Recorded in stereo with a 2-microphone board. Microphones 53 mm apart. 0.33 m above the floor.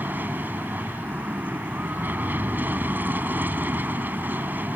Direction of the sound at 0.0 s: 40° right (ahead or behind).